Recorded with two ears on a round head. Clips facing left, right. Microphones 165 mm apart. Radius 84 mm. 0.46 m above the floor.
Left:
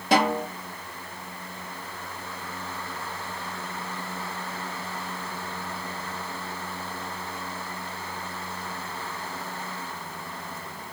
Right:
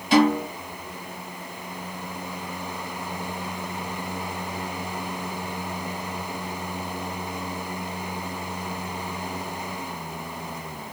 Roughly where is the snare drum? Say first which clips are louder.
Right 4 dB; left.